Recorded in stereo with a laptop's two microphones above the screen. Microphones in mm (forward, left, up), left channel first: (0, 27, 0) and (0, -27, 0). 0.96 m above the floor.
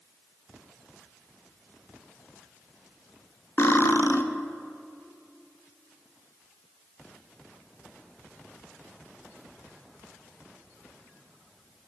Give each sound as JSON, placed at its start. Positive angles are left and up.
{"t": 3.6, "sound": "cutlery clinking", "side_deg": 45, "distance_m": 0.5}